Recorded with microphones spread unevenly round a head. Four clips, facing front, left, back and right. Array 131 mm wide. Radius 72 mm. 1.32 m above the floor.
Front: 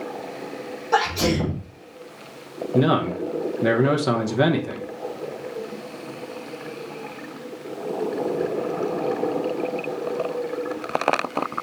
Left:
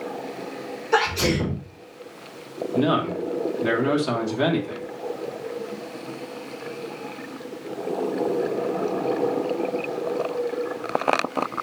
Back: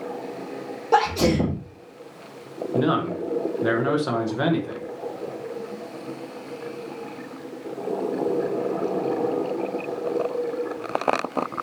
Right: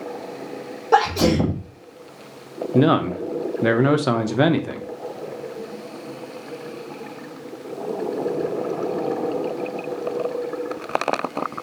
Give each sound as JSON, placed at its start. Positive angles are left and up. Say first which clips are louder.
{"t": 0.9, "sound": "a sneeze", "louder": "right 5 dB, back 2 dB", "azimuth_deg": -120, "distance_m": 1.7}
{"t": 2.7, "sound": "a man speaking", "louder": "right 4 dB, front 3 dB", "azimuth_deg": -70, "distance_m": 1.2}